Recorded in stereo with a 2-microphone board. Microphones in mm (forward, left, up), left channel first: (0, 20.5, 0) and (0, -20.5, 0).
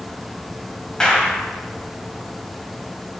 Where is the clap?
20° left (ahead or behind), 1.2 m.